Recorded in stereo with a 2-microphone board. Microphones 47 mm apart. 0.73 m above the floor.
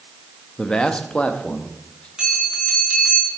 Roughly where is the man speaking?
Centre.